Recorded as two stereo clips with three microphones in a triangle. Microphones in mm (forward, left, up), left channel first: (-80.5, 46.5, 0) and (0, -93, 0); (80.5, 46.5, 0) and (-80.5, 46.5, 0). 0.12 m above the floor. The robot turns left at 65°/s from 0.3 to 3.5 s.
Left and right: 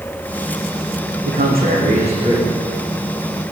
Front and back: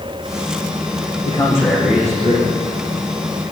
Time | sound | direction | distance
1.2 | a man speaking | 55° right | 8.5 m